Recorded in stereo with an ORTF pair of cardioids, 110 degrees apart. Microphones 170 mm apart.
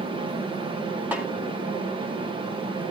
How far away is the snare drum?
About 2.0 m.